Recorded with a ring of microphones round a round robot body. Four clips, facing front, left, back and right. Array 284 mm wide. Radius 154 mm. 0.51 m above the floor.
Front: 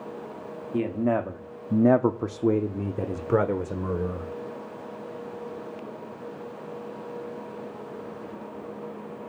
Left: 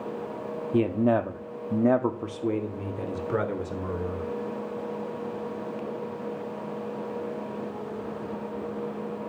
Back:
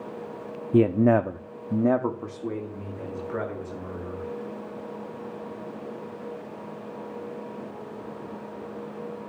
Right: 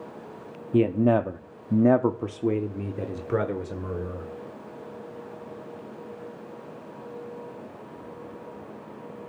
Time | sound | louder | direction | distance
0.7 | a man speaking | right 2 dB, back 6 dB | 165° right | 1.0 m